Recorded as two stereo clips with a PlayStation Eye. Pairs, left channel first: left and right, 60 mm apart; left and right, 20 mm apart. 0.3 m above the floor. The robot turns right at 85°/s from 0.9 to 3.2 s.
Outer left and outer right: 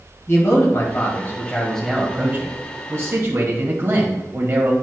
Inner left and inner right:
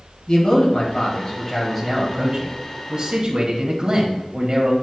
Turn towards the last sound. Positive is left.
turn(degrees=-70)